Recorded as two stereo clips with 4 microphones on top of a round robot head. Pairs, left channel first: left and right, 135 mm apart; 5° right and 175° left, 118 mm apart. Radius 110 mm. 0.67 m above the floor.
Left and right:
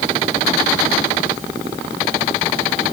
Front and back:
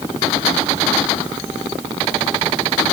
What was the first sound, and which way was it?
Only background noise.